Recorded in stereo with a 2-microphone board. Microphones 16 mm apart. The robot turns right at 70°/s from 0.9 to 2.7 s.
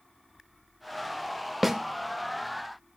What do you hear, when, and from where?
1.6 s a snare drum: 10° right (ahead or behind), 0.6 m; by 1.8 s 20° right (ahead or behind), 0.6 m